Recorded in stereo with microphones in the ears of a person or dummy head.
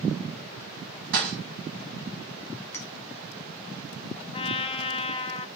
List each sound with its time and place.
1.1 s a thud: 60° right (ahead or behind), 2.0 m
2.7 s a clink: 10° left (ahead or behind), 0.8 m
4.3 s a trumpet: 30° left (ahead or behind), 0.6 m